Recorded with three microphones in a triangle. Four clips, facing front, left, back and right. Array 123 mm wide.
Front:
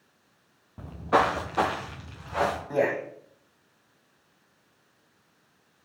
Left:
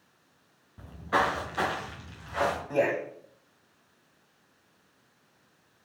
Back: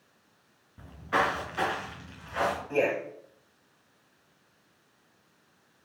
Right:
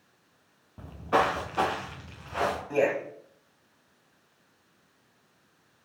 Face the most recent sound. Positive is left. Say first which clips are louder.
# right 2 dB, front 1 dB
turn(degrees=5)